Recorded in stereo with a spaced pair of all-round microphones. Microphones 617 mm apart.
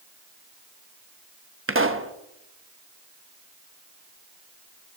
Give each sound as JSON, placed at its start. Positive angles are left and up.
{"t": 1.7, "sound": "a pop", "side_deg": -20, "distance_m": 1.0}